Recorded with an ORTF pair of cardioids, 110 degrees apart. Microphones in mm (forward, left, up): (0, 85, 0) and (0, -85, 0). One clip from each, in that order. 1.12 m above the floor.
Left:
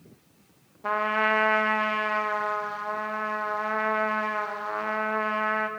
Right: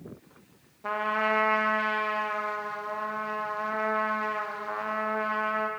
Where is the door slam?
I don't hear a door slam.